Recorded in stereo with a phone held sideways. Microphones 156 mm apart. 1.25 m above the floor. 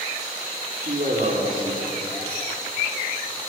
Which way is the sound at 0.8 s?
70° right (ahead or behind).